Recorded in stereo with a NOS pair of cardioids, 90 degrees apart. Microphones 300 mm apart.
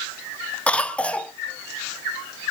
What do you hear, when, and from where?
0.7 s a cough: 5° left, 0.8 m